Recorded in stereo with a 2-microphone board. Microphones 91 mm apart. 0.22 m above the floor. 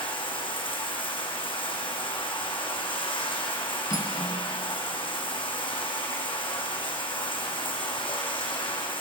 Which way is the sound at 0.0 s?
80° left.